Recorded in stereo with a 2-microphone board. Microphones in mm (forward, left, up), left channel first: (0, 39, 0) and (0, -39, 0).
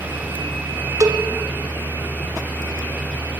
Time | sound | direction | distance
1.0 | a cowbell | 50° right (ahead or behind) | 1.8 m